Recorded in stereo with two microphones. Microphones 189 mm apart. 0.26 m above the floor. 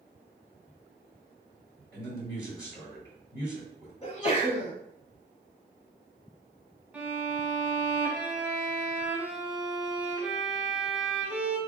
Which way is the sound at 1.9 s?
20° left (ahead or behind).